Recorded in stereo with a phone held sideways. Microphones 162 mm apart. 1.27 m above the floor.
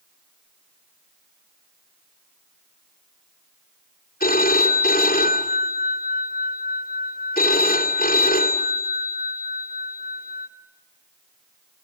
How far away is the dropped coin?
No dropped coin in this recording.